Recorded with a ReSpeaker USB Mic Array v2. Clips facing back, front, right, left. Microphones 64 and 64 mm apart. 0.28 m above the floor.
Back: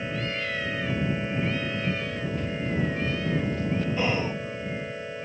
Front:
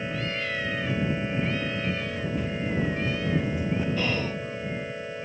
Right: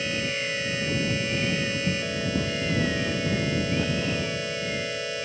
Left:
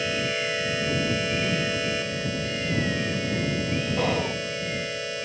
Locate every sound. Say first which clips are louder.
1.9 s running footsteps: even, even; 90° right; by 3.9 s 70° right
4.0 s whispering: back 1 dB, left 3 dB; 110° left